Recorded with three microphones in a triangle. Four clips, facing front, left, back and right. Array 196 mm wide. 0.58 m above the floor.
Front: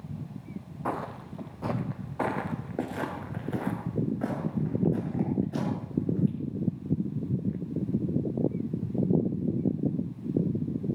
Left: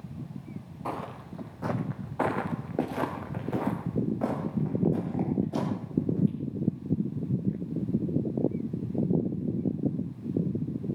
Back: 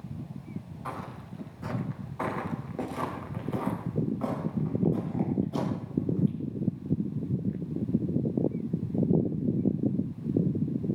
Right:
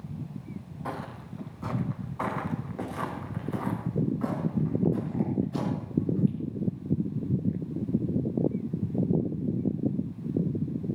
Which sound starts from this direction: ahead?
Footsteps, at 0.8 s.